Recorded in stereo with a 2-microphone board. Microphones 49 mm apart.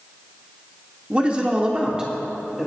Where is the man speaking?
25° right (ahead or behind), 1.4 m; by 2.7 s 10° right (ahead or behind), 1.7 m.